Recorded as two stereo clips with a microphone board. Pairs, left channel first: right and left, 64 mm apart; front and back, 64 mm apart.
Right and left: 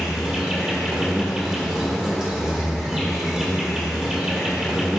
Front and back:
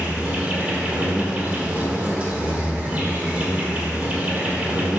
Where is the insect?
155° left, 1.2 m.